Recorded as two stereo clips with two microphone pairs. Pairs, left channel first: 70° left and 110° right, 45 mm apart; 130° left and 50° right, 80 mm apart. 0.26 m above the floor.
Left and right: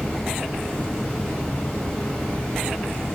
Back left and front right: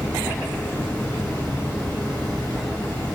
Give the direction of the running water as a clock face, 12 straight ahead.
8 o'clock.